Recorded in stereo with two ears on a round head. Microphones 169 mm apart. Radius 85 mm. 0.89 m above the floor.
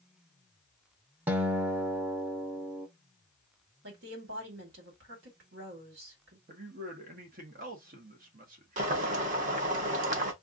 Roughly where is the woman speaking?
Right.